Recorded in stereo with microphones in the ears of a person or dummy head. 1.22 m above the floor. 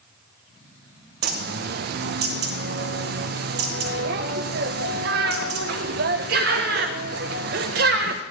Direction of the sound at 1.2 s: 55° right (ahead or behind).